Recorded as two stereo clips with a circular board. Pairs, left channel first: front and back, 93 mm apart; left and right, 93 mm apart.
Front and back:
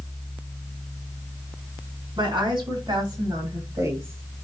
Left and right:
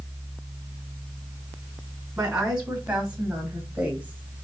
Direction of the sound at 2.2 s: 170° right.